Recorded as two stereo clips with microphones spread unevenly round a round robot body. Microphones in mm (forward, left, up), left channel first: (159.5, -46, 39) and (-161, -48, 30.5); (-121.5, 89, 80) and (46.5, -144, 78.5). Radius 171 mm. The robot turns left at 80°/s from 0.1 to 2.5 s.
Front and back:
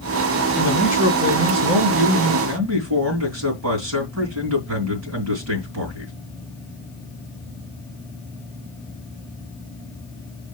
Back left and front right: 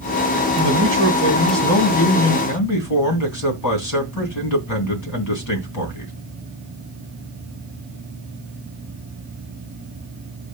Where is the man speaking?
70° right, 3 m; by 6.1 s 135° left, 3 m.